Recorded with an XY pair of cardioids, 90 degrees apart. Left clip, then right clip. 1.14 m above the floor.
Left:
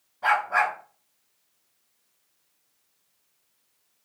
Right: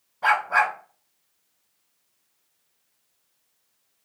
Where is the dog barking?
50° right, 1.7 m.